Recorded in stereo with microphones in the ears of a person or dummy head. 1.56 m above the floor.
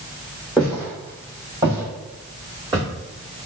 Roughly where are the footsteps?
Centre.